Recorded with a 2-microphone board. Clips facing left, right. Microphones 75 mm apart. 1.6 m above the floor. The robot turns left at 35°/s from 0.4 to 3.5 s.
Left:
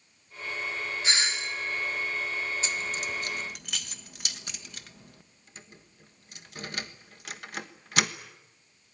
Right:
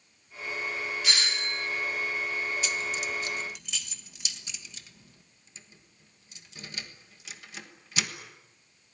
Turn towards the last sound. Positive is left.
turn(degrees=55)  # may be behind; listen again after turning